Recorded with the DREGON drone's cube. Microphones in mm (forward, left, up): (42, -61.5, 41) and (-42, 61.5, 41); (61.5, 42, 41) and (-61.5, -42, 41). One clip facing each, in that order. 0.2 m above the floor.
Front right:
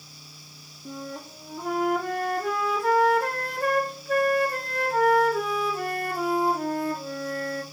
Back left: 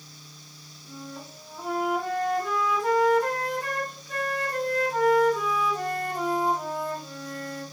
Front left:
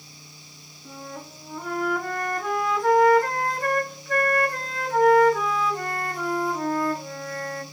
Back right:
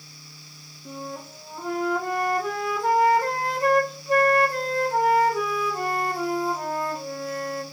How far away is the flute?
About 1.0 m.